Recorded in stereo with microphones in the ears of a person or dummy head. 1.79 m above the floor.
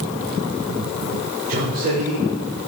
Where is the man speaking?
45° right (ahead or behind), 5 m.